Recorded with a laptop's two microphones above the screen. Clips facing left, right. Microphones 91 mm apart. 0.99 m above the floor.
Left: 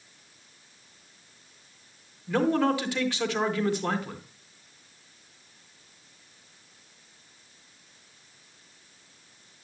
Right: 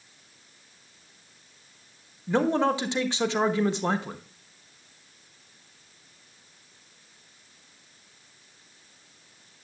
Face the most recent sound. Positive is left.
turn(degrees=-25)  # may be behind; listen again after turning